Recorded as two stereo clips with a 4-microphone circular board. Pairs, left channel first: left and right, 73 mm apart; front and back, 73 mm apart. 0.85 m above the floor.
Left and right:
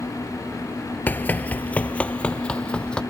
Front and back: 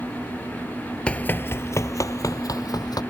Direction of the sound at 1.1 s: 60° left.